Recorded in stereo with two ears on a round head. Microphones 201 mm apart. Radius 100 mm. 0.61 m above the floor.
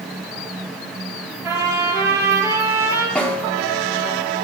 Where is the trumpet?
15° right (ahead or behind), 3.5 m.